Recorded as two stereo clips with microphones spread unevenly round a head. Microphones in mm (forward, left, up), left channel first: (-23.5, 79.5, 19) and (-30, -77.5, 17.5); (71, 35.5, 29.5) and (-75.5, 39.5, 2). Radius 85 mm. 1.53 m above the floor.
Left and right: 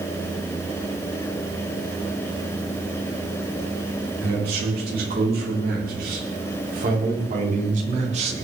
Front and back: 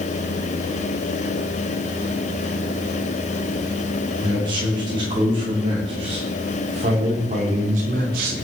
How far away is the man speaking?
About 6 m.